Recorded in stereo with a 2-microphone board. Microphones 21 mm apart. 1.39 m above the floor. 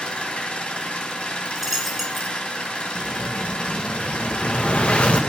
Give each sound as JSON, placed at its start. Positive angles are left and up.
{"t": 0.0, "sound": "an engine running", "side_deg": 60, "distance_m": 2.5}
{"t": 1.4, "sound": "a dropped coin", "side_deg": -15, "distance_m": 1.5}
{"t": 3.0, "sound": "an explosion", "side_deg": 75, "distance_m": 1.7}